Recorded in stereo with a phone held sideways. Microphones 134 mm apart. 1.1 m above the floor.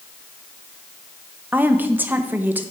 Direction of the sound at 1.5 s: 15° right (ahead or behind).